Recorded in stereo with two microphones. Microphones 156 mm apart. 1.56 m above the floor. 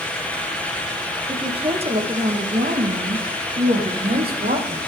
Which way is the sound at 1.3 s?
25° right (ahead or behind).